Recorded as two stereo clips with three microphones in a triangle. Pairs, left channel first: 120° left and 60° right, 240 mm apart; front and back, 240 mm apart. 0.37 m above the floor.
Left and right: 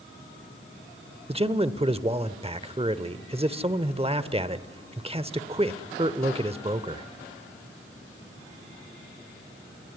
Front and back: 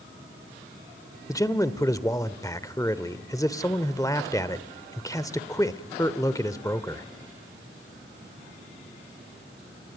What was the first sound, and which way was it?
A man speaking, 55° right.